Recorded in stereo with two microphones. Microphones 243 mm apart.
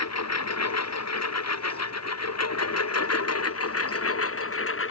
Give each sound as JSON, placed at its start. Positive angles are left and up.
{"t": 0.0, "sound": "a lawn mower", "side_deg": 85}